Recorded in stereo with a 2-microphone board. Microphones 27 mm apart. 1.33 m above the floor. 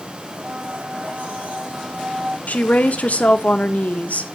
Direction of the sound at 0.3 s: 75° right (ahead or behind).